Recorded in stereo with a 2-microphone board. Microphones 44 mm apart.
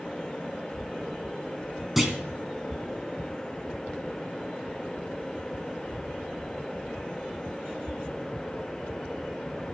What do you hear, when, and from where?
2.0 s a clunk: 5° right (ahead or behind), 2 m